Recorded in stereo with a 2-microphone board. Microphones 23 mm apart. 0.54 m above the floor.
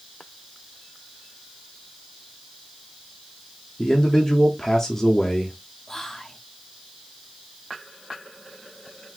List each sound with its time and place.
3.8 s a man speaking: 20° left (ahead or behind), 1.0 m
5.9 s whispering: 15° left (ahead or behind), 0.7 m